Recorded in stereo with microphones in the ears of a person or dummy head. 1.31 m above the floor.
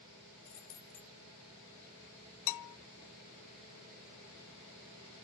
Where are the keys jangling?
70° left (ahead or behind), 7.5 m.